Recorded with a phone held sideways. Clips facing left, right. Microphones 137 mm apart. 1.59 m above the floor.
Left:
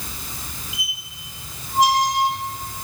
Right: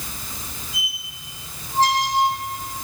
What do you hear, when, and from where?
0.7 s a squeak: 15° left (ahead or behind), 2.5 m